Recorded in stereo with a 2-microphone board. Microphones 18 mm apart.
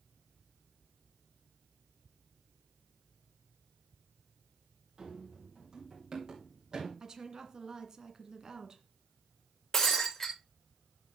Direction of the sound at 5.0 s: 45° right (ahead or behind).